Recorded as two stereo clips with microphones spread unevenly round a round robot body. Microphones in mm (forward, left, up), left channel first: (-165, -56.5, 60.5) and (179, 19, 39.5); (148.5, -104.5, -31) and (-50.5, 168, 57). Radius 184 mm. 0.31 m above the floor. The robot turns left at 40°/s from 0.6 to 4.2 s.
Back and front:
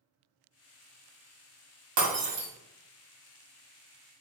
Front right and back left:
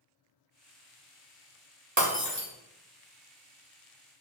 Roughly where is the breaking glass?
Ahead left.